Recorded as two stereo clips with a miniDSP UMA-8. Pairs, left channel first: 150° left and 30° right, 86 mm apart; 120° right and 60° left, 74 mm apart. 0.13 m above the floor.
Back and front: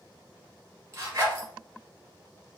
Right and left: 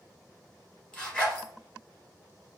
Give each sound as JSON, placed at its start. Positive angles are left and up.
{"t": 0.9, "sound": "a zipper", "azimuth_deg": -55, "distance_m": 1.5}